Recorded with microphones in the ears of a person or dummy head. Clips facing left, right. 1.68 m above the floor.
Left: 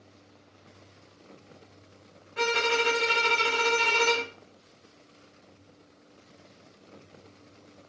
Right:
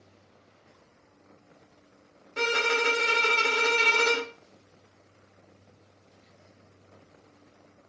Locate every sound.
2.4 s a violin: 45° right (ahead or behind), 0.8 m